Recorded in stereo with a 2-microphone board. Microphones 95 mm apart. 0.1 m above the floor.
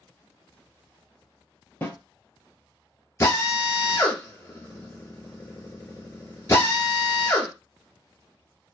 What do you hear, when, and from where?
1.8 s a snare drum: 25° left (ahead or behind), 0.9 m
3.2 s a drill: 30° left (ahead or behind), 0.9 m